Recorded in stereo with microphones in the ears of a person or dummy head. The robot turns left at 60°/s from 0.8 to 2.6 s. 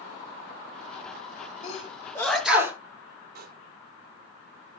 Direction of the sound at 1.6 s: 45° left (ahead or behind).